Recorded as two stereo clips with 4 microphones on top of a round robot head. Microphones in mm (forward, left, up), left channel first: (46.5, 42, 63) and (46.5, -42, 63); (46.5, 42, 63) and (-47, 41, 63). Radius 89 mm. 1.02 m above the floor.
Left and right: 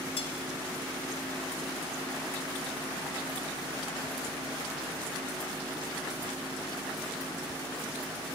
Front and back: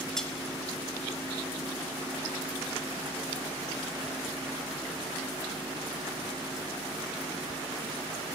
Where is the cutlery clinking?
85° left, 2 m.